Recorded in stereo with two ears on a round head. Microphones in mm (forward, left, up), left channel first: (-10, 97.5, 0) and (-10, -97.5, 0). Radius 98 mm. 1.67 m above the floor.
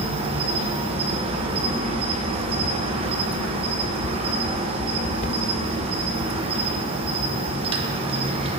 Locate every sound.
0.0 s an insect: 25° right (ahead or behind), 0.9 m